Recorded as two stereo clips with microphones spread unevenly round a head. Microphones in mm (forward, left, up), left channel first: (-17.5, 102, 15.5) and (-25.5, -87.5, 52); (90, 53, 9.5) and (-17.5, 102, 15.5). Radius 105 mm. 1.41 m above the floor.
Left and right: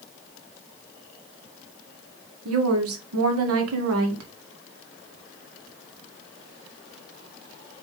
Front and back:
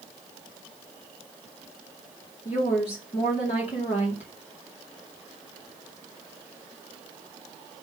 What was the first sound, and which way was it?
A woman speaking, 80° right.